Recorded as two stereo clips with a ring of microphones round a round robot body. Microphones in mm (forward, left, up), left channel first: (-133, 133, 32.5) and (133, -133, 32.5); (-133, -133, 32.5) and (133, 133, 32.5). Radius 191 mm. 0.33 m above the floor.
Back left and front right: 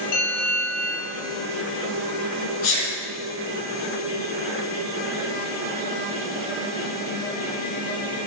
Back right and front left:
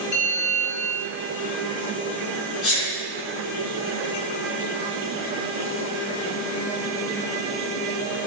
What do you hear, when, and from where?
0.1 s a bell: 165° left, 4.5 m
2.6 s a sneeze: 175° right, 3.5 m